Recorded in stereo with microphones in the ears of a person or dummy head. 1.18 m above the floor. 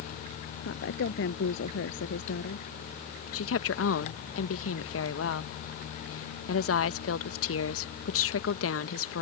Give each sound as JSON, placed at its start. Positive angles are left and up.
{"t": 0.7, "sound": "a woman speaking", "side_deg": 55}
{"t": 3.3, "sound": "a woman speaking", "side_deg": 65}